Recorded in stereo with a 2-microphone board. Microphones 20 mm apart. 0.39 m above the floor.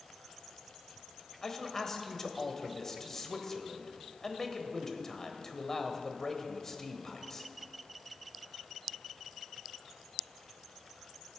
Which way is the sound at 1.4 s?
20° left (ahead or behind).